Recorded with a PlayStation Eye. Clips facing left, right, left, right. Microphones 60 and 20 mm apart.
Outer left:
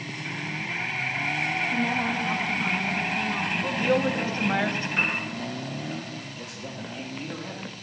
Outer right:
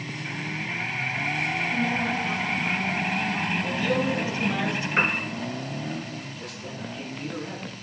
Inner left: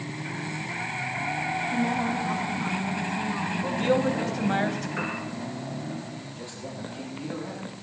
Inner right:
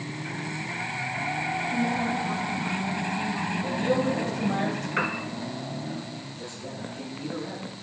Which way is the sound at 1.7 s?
25° left (ahead or behind).